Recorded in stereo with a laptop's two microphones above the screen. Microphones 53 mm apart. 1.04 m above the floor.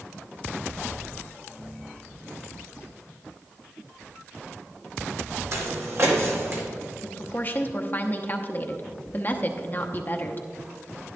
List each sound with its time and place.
5.5 s footsteps: 60° right (ahead or behind), 2 m; by 6.6 s 50° right (ahead or behind), 2 m
7.0 s a woman speaking: 40° left (ahead or behind), 0.8 m